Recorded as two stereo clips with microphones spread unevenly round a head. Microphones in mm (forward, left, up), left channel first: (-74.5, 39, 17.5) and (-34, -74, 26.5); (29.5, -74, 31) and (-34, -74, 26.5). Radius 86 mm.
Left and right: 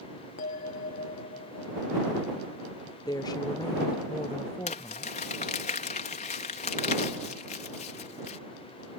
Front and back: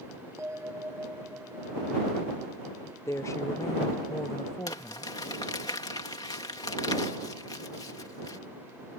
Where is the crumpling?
60° left.